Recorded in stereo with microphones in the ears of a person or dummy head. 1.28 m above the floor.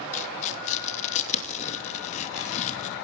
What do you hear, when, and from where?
0.1 s tearing paper: 35° left (ahead or behind), 2.5 m